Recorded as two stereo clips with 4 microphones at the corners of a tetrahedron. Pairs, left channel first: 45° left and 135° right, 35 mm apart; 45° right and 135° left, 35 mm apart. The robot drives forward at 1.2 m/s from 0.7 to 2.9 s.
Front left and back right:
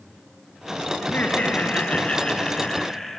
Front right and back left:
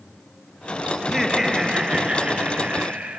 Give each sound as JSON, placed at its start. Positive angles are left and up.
{"t": 1.0, "sound": "laughter", "azimuth_deg": 50, "distance_m": 2.5}